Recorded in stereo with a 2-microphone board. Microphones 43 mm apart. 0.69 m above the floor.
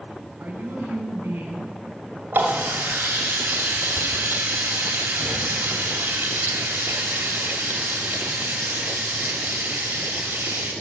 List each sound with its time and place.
0.4 s a woman speaking: 40° right (ahead or behind), 5 m; by 1.8 s 50° right (ahead or behind), 5 m
2.3 s a running tap: 50° right (ahead or behind), 2.5 m